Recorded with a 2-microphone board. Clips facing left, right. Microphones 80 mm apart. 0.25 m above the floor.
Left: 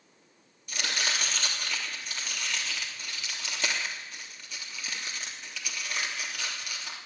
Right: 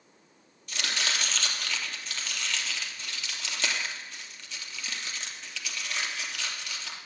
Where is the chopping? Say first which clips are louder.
Even; 10° left (ahead or behind), 3.5 m.